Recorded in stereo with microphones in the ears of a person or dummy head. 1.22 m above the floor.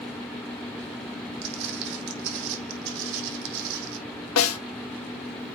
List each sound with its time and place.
1.4 s footsteps: 65° right (ahead or behind), 4 m; by 4.0 s 75° right (ahead or behind), 4 m
4.4 s a snare drum: 80° left, 1.9 m